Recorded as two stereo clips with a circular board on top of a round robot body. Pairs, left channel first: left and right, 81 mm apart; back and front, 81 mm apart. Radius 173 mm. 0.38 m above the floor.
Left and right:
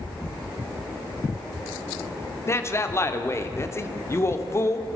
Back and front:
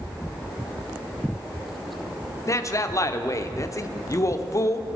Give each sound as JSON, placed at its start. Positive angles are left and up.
{"t": 2.5, "sound": "a man speaking", "azimuth_deg": 140, "distance_m": 1.2}